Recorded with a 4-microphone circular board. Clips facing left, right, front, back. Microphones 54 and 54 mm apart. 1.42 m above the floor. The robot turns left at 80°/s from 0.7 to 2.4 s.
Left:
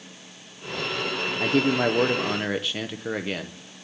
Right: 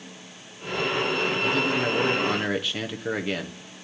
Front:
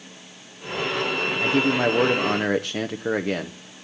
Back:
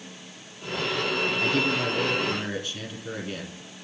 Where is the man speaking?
80° left, 0.9 m; by 3.8 s straight ahead, 0.9 m.